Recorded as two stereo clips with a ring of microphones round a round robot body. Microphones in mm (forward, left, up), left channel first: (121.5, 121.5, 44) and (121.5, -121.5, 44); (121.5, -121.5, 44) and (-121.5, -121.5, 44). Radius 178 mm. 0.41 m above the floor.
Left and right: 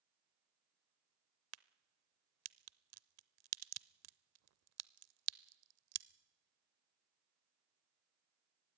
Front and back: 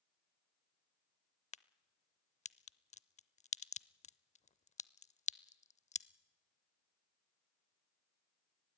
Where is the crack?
65° right, 0.7 m.